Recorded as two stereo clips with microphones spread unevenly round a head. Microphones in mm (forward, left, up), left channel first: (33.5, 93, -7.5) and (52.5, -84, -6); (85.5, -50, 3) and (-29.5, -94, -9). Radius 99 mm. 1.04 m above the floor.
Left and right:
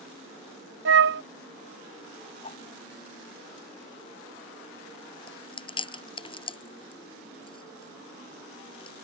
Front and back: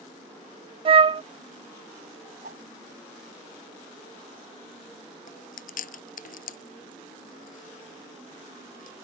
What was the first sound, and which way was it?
A flute, 110° right.